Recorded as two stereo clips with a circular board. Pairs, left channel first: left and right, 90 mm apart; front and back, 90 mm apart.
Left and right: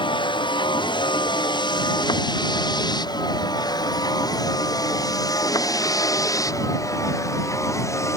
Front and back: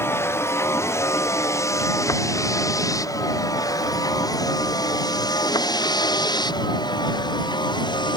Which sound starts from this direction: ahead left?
A vehicle, at 0.0 s.